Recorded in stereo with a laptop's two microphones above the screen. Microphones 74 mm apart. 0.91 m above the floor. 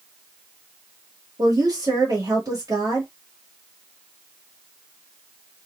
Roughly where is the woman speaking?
Right.